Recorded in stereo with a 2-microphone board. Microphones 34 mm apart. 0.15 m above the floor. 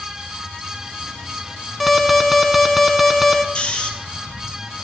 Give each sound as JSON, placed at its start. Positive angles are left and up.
{"t": 1.8, "sound": "an alarm", "side_deg": 0, "distance_m": 0.7}
{"t": 3.5, "sound": "snoring", "side_deg": 30, "distance_m": 1.7}